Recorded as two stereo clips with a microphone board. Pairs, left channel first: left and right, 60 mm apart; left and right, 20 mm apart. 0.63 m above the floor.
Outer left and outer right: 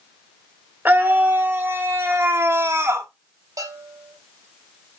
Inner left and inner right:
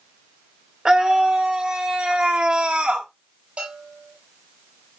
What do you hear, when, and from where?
0.8 s a scream: 30° right (ahead or behind), 2.5 m; by 3.1 s 45° right (ahead or behind), 1.6 m
3.6 s a bell: 75° right (ahead or behind), 4.5 m